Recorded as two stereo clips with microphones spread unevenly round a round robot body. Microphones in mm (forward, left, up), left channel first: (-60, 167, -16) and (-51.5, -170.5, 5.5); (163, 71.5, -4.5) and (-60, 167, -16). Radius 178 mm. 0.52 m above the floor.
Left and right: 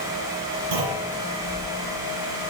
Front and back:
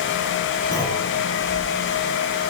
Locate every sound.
0.7 s a clunk: 105° right, 8.5 m